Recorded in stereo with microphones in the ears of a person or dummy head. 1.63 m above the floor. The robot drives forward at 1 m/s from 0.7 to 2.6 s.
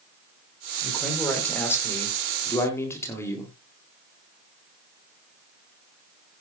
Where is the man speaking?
15° left (ahead or behind), 5.5 m; by 3.5 s 20° left (ahead or behind), 4 m.